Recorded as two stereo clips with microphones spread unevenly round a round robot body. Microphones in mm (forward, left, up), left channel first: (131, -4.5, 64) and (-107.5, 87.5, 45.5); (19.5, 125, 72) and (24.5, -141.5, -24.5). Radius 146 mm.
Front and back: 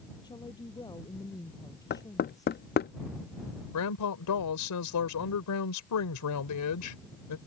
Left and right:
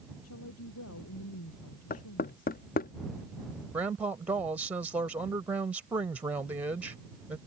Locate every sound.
0.2 s a woman speaking: 55° left
1.9 s knocking: 20° left
3.7 s a woman speaking: 10° right